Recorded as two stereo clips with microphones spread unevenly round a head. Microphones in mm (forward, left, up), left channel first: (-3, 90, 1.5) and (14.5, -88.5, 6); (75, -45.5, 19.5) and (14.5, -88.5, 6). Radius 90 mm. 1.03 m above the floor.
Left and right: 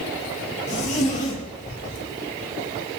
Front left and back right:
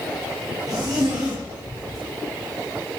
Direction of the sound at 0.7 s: 145° left.